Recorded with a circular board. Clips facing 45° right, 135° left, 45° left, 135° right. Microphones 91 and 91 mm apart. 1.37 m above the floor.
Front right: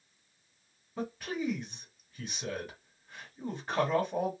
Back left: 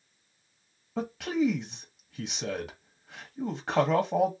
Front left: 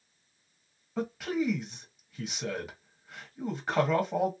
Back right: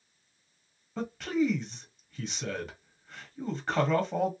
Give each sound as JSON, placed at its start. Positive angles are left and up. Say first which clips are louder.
{"t": 1.0, "sound": "a man speaking", "louder": "back left 7 dB, back right 2 dB", "azimuth_deg": 130, "distance_m": 0.8}